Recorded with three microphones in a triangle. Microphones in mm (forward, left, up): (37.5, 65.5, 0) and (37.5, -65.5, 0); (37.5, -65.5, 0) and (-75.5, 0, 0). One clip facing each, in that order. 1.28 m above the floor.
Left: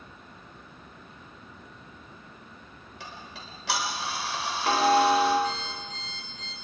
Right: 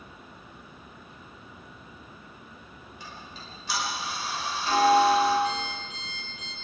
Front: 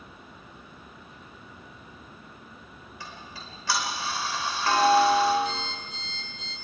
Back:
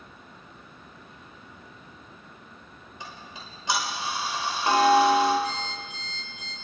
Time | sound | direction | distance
3.0 | ticking | 80° left | 4.5 m
5.4 | an alarm clock | 140° left | 9.5 m